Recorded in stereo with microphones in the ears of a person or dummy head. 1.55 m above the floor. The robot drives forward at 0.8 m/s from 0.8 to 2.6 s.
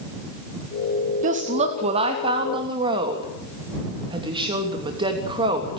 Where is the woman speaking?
40° right (ahead or behind), 2 m; by 5.8 s 25° right (ahead or behind), 3 m.